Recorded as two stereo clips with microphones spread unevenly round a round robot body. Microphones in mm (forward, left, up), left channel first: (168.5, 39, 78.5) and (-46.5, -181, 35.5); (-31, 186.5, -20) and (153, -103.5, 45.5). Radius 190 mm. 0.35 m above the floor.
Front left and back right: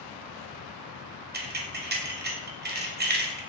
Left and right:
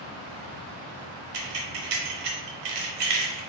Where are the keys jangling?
80° right, 1.1 m.